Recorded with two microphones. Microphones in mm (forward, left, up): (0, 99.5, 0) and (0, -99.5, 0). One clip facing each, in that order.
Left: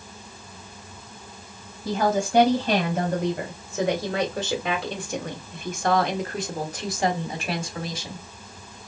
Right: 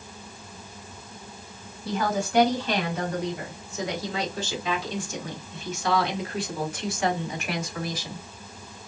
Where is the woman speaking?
40° left (ahead or behind), 2.5 m; by 8.2 s 25° left (ahead or behind), 2 m.